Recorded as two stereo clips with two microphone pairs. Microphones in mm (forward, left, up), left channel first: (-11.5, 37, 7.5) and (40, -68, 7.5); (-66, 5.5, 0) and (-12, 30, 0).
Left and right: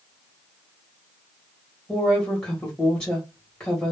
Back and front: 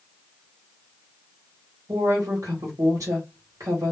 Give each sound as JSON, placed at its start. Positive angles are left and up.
{"t": 1.9, "sound": "a woman speaking", "azimuth_deg": 35, "distance_m": 0.9}